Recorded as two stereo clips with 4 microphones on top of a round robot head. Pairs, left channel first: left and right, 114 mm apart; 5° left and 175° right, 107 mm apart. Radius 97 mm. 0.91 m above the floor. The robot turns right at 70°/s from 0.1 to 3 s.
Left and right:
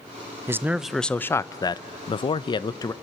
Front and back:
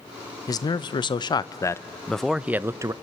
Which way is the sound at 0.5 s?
30° right.